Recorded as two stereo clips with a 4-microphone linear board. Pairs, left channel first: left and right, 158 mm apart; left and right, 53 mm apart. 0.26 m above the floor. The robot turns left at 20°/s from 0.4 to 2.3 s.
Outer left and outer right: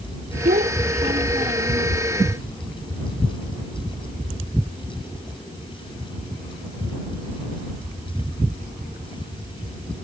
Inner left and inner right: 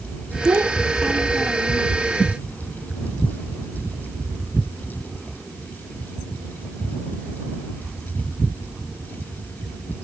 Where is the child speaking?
60° right (ahead or behind); by 1.9 s 30° right (ahead or behind).